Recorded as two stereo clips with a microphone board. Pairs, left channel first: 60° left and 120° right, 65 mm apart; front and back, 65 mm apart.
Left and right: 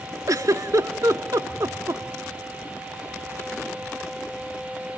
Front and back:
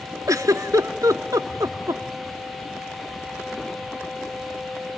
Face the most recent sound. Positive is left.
turn(degrees=-150)